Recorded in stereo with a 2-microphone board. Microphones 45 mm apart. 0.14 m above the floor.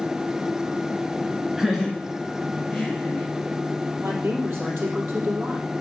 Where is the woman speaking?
70° right (ahead or behind), 4 m.